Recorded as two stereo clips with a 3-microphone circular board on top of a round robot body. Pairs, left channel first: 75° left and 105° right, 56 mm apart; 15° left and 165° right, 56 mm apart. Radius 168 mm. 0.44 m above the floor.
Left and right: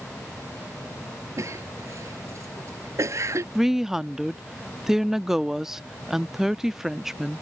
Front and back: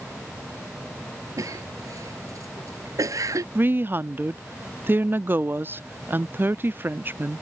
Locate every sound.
1.4 s a cough: 140° right
3.5 s a woman speaking: 175° left